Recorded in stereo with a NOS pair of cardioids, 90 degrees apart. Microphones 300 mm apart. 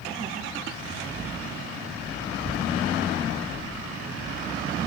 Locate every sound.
2.3 s a child speaking: 15° right, 2.5 m; by 4.7 s 5° left, 4 m